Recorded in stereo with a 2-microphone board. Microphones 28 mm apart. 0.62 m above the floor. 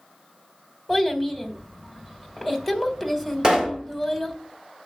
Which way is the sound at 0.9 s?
10° right (ahead or behind).